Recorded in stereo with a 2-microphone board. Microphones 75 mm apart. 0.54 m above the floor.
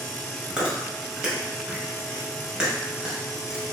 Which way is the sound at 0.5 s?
10° right (ahead or behind).